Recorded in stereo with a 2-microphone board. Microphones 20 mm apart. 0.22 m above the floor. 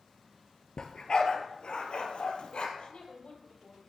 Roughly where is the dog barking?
Left.